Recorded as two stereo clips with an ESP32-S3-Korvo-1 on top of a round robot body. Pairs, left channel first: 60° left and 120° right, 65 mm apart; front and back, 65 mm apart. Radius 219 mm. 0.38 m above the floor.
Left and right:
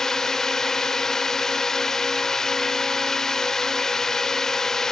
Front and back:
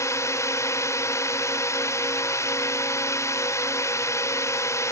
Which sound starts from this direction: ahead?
A drone, at 0.0 s.